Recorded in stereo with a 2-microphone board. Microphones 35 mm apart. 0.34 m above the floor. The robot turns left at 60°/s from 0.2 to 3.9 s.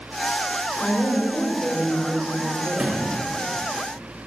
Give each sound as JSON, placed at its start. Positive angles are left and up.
{"t": 0.8, "sound": "a woman speaking", "side_deg": 30, "distance_m": 1.3}
{"t": 2.8, "sound": "a sliding door", "side_deg": -35, "distance_m": 1.7}